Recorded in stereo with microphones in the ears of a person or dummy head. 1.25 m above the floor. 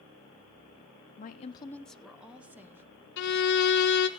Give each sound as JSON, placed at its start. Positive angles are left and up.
{"t": 1.2, "sound": "a woman speaking", "side_deg": 35, "distance_m": 0.6}
{"t": 3.2, "sound": "a violin", "side_deg": 60, "distance_m": 1.3}